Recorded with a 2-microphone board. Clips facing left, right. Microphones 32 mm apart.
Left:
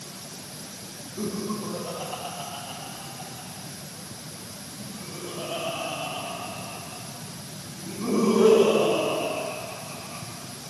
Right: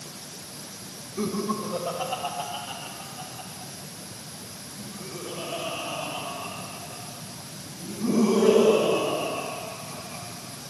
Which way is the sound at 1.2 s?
30° right (ahead or behind).